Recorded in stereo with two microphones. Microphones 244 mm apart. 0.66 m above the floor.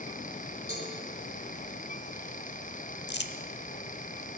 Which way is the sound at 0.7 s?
45° left (ahead or behind).